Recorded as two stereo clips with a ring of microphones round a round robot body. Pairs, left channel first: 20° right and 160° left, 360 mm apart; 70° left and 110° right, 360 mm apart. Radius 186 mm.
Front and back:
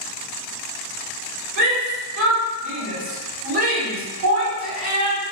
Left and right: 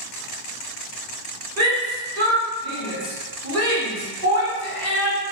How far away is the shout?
About 1.5 m.